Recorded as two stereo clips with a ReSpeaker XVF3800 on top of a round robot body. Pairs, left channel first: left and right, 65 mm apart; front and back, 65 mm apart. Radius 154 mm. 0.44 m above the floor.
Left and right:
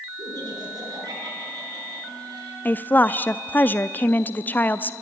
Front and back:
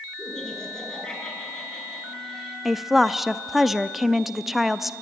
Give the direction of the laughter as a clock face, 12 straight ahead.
3 o'clock.